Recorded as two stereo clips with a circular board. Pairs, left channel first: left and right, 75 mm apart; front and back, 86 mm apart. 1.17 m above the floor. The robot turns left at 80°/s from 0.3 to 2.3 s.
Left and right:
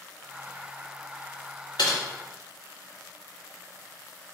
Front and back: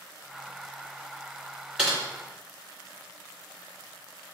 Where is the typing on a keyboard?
95° left, 1.5 m; by 2.0 s 80° left, 1.5 m.